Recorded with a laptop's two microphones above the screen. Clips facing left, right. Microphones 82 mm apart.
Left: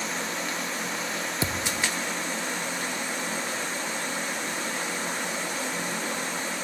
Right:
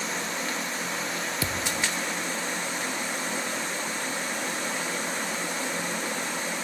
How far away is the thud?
About 0.8 m.